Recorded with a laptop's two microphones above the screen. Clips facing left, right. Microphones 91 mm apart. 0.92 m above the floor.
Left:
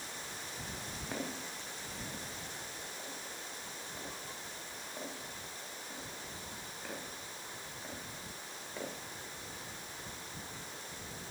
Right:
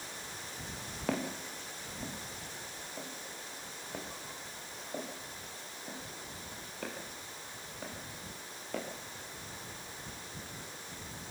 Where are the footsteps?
80° right, 6 m; by 8.8 s 85° right, 11.5 m.